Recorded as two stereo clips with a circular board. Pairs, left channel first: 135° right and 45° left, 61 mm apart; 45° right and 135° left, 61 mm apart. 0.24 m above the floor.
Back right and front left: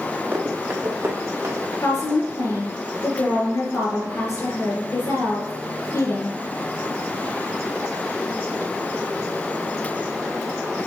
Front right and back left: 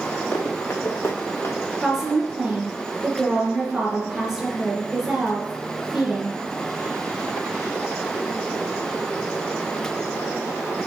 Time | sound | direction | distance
0.3 | running footsteps | 10° right | 3.5 m
1.8 | a woman speaking | 140° right | 3.5 m